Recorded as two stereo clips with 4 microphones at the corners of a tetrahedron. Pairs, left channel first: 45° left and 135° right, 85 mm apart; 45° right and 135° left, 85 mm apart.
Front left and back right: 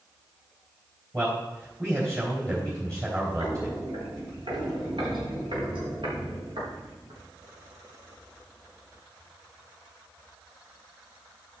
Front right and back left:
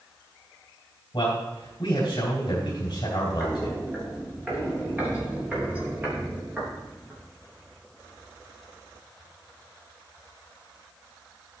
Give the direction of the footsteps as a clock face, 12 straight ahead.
5 o'clock.